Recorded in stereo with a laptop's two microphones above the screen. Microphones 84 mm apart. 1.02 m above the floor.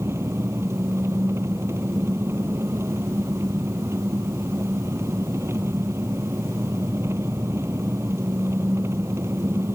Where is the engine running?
35° right (ahead or behind).